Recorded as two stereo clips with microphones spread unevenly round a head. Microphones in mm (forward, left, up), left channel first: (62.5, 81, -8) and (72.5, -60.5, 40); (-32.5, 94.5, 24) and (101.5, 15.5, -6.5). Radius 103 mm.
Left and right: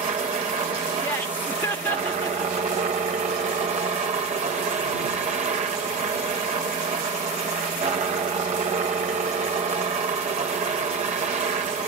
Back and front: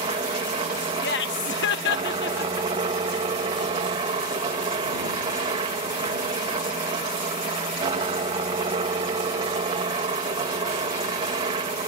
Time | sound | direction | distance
0.0 | a helicopter | 55° right | ?
1.0 | laughter | 165° left | ?